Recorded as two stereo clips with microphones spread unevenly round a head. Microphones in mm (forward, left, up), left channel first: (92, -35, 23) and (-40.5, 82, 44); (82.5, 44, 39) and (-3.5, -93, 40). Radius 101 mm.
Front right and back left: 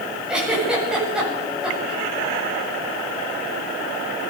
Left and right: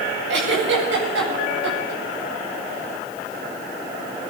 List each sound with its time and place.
0.3 s a giggle: 135° right, 8.5 m